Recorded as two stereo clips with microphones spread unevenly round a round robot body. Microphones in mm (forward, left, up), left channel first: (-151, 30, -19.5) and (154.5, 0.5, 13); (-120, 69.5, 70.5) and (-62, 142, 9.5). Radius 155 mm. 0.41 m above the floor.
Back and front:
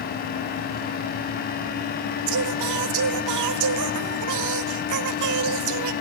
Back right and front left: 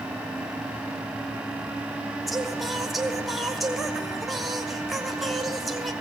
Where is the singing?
5° right, 1.7 m.